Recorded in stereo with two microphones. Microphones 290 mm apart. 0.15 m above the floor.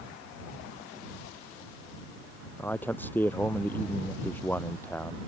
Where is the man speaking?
5° left (ahead or behind).